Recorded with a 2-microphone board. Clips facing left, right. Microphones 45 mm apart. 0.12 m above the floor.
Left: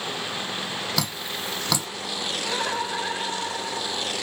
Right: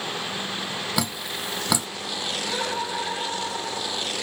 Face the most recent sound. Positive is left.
turn(degrees=50)  # may be behind; listen again after turning